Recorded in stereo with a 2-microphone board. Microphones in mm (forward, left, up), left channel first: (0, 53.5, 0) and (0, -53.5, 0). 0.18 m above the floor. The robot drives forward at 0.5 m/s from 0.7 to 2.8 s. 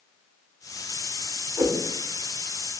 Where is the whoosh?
25° right (ahead or behind), 0.5 m; by 1.9 s 20° right (ahead or behind), 0.6 m.